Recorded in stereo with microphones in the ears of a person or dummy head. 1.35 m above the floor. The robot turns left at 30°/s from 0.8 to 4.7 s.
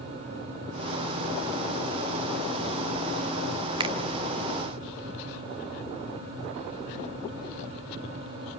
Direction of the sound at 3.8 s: 25° right (ahead or behind).